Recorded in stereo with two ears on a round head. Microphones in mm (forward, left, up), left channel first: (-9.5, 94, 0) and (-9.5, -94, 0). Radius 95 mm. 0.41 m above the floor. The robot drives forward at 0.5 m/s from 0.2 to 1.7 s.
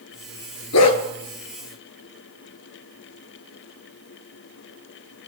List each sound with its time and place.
0.7 s a dog barking: 85° left, 1.7 m